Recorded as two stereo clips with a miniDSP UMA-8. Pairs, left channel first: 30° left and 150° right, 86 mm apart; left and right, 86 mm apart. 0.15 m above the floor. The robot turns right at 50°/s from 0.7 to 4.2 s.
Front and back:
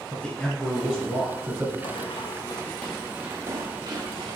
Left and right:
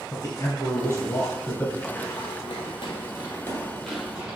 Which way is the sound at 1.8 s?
10° left.